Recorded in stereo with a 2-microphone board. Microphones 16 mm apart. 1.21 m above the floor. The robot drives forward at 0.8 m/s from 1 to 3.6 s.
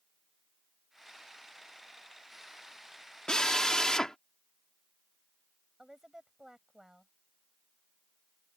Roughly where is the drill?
Left.